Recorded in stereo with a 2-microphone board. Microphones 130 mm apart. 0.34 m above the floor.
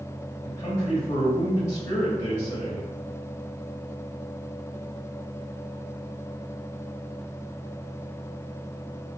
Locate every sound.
0.4 s a man speaking: 30° left (ahead or behind), 1.4 m